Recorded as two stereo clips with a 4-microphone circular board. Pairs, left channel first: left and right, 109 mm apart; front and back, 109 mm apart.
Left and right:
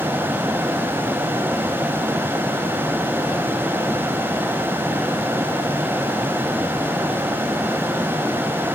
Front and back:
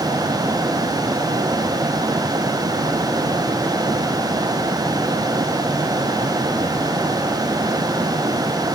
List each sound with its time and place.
Only background noise.